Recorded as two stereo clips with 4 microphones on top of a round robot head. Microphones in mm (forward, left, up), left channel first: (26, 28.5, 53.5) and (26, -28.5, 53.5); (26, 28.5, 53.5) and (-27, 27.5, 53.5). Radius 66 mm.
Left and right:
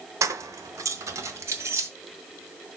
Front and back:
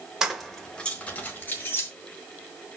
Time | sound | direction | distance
0.2 | keys jangling | 100° right | 1.0 m